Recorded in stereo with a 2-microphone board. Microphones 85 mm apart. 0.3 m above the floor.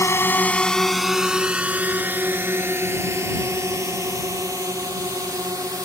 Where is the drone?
35° left (ahead or behind); by 5.9 s 45° right (ahead or behind).